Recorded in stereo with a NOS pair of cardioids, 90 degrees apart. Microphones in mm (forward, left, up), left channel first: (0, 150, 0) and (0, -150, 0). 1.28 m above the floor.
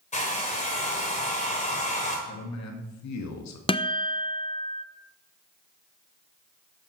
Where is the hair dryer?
25° left, 3.5 m.